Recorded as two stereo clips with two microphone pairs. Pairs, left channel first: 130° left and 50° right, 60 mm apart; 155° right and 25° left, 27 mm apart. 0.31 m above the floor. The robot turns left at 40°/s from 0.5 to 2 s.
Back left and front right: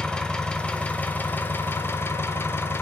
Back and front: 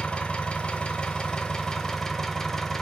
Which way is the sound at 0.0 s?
165° right.